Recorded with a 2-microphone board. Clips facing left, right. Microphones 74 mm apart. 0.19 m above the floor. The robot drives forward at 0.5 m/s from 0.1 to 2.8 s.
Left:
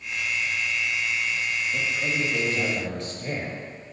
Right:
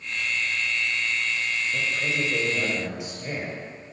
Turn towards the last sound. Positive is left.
turn(degrees=-10)  # may be behind; listen again after turning